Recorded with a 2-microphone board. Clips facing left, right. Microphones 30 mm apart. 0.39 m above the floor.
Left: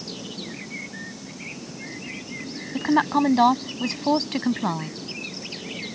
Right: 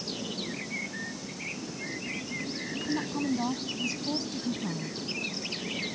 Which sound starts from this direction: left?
A woman speaking, at 2.7 s.